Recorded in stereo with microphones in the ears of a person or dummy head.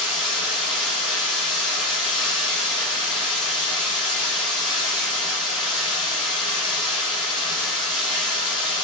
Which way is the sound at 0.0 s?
5° left (ahead or behind).